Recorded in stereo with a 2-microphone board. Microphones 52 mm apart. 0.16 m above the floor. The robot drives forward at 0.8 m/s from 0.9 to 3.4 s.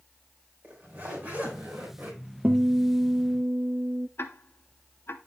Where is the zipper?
30° right (ahead or behind), 3.5 m; by 2.2 s 45° right (ahead or behind), 3 m.